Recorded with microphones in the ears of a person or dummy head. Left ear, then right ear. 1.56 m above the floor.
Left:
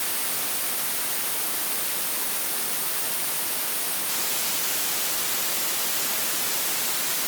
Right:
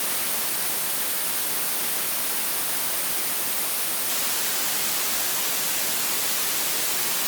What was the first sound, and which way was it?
Only background noise.